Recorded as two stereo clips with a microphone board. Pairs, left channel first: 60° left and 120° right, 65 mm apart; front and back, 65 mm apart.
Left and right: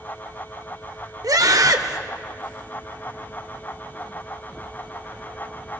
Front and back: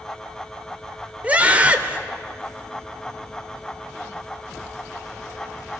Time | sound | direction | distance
1.2 | a scream | 115° right | 2.5 m